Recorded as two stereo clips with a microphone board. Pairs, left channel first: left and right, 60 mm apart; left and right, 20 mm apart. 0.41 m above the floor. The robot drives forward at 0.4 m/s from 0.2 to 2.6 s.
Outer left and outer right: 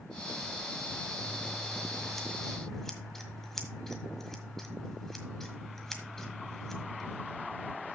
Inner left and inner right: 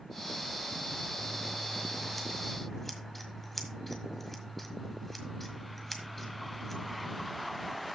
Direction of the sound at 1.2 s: 5° left (ahead or behind).